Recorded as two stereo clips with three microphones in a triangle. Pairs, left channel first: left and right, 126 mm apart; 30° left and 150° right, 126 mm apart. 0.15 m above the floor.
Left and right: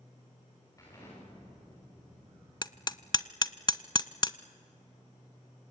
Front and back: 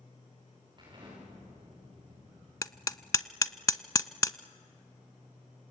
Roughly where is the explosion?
Behind left.